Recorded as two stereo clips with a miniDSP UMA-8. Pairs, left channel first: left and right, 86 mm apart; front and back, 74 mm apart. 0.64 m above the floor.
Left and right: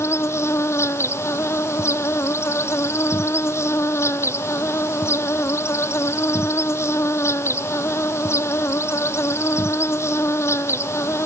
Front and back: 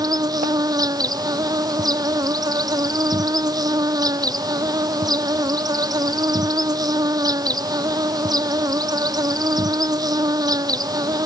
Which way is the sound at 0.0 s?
150° left.